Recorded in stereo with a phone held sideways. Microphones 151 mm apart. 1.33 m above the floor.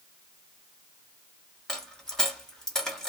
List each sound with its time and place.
1.7 s a dropped coin: 5° left (ahead or behind), 0.9 m